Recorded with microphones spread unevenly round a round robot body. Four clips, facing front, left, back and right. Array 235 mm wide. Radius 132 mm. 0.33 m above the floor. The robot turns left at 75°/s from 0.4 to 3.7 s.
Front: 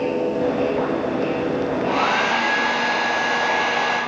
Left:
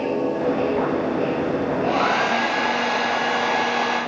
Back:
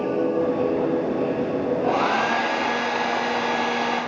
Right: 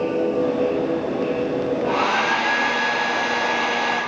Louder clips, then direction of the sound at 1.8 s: Left 1 dB, front 1 dB; 160° left.